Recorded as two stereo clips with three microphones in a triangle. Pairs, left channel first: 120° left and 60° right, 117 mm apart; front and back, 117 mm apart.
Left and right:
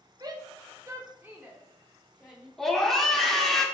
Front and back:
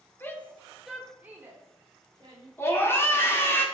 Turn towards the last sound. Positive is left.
turn(degrees=35)